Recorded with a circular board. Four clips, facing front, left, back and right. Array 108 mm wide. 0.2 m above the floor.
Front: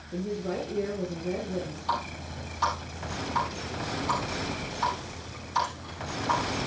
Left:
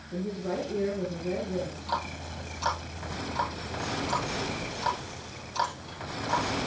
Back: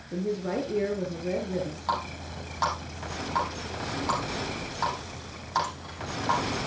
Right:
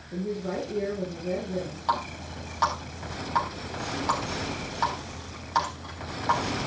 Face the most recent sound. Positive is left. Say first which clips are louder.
# right 8 dB, front 1 dB
turn(degrees=-120)